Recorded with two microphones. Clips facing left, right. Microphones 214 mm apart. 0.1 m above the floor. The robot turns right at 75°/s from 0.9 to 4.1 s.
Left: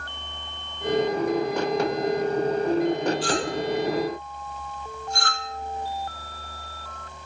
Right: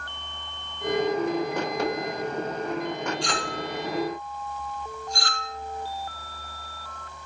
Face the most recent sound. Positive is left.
turn(degrees=60)  # may be behind; listen again after turning